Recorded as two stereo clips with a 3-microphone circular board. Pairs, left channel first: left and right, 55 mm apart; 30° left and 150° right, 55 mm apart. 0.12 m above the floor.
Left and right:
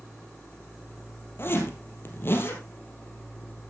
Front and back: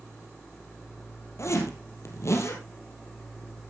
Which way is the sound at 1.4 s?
50° left.